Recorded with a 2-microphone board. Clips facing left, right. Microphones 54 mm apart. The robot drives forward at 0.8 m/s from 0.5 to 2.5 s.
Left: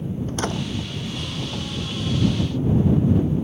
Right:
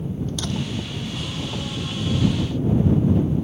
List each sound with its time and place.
0.3 s a door slam: 40° left (ahead or behind)